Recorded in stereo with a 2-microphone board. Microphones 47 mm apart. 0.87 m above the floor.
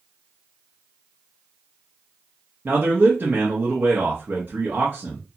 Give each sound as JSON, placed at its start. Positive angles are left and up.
{"t": 2.6, "sound": "a man speaking", "side_deg": -45, "distance_m": 0.7}